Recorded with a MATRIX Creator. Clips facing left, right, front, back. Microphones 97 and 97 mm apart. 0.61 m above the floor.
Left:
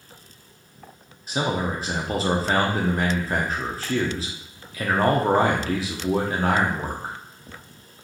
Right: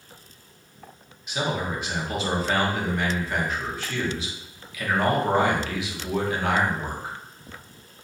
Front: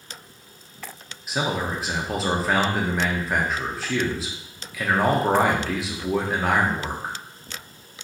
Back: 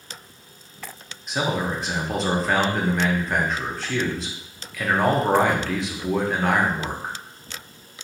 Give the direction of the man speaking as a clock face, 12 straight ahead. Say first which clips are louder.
Left 3 dB, back 1 dB; 9 o'clock.